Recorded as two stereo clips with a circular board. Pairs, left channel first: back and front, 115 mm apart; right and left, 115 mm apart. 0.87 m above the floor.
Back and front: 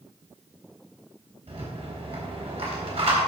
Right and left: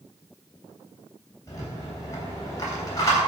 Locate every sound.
1.5 s a rattle: 30° right, 3.5 m